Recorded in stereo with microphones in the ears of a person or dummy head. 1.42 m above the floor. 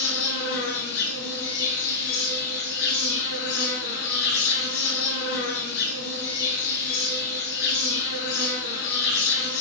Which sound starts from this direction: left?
An insect, at 0.0 s.